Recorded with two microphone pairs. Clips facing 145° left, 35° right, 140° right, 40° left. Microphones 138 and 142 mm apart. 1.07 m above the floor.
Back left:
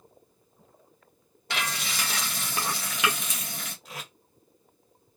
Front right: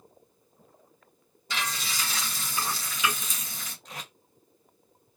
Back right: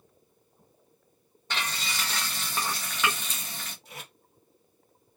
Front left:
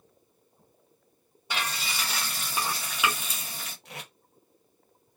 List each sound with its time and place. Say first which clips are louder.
1.5 s frying: back left 1 dB, front left 1 dB; 120° left, 0.9 m
3.9 s tape being pulled: back left 1 dB, front left 2 dB; 60° left, 0.8 m